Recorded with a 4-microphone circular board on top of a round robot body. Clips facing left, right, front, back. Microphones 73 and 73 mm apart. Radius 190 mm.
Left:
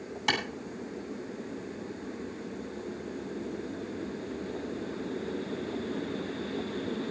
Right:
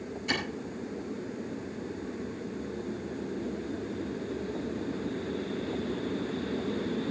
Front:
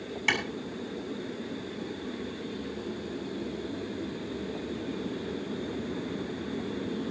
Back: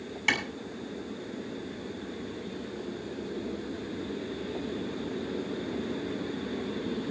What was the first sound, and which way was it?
A clap, 90° left.